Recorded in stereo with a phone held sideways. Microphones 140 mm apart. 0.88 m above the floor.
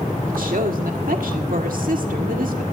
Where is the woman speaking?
80° right, 1.9 m.